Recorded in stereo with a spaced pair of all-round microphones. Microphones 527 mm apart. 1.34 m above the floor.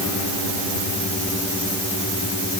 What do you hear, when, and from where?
Only background noise.